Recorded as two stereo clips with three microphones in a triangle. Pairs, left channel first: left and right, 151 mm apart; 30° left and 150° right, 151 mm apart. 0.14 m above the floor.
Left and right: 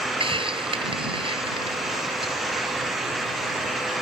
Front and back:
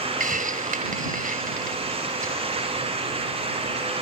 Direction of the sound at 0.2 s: 140° right.